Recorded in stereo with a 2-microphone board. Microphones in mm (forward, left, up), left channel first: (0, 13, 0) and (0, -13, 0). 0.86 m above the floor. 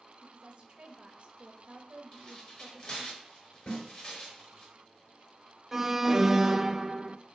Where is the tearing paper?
40° left (ahead or behind), 5 m.